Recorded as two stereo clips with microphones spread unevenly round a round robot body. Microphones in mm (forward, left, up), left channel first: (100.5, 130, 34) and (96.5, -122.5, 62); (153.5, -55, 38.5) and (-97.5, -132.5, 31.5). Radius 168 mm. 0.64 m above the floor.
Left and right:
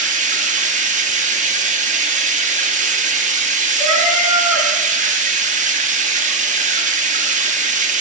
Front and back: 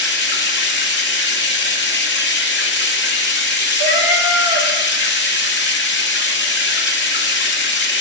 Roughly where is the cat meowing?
Ahead right.